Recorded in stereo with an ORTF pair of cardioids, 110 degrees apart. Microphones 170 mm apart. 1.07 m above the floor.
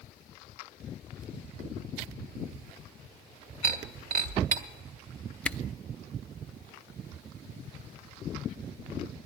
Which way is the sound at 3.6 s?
55° right.